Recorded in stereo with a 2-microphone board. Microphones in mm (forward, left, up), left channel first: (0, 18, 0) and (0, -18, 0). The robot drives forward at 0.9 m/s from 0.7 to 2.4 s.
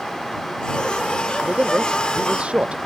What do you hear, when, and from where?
1.4 s a man speaking: 30° right (ahead or behind); by 2.8 s 35° right (ahead or behind)